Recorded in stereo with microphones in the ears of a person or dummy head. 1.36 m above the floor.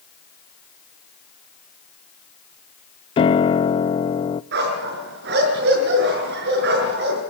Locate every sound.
3.2 s a piano: 25° left (ahead or behind), 0.6 m
4.5 s a dog barking: 65° right (ahead or behind), 5.5 m